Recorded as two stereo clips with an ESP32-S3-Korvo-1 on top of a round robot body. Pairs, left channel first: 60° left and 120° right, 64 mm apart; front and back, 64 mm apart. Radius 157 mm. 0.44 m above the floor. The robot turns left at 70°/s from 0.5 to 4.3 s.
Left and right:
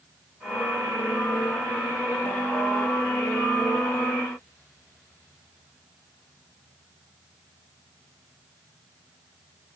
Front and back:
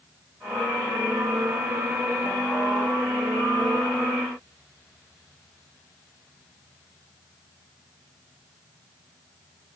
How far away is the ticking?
I don't hear ticking.